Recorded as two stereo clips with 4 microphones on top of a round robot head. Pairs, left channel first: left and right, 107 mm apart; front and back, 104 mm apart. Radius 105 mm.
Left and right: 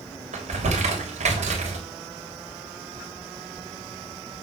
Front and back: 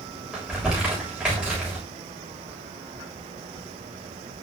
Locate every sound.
0.3 s crumpling: 95° right, 3.5 m